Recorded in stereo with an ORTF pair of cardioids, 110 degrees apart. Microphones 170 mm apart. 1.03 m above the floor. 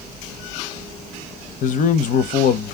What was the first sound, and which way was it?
A man speaking, 50° left.